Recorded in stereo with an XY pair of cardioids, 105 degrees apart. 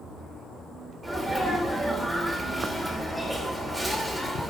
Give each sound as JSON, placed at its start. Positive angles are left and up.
{"t": 1.0, "sound": "a sneeze", "azimuth_deg": 0, "distance_m": 2.5}